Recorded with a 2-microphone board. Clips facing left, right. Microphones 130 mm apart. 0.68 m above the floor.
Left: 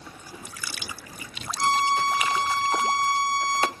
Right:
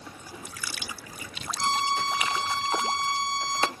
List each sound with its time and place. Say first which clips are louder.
1.6 s a violin: left 4 dB; 45° left (ahead or behind), 1.3 m